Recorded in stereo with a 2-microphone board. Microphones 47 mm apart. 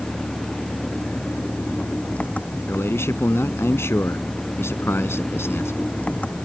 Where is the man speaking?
65° left (ahead or behind).